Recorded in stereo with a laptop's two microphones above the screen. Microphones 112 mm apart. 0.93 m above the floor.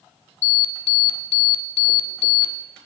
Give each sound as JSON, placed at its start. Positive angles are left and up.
{"t": 0.4, "sound": "an alarm", "side_deg": 75, "distance_m": 1.1}